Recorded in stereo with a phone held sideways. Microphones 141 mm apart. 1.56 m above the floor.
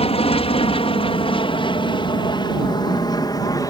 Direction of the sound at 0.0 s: 50° left (ahead or behind).